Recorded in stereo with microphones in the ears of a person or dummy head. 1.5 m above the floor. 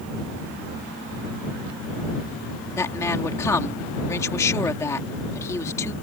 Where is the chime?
I don't hear a chime.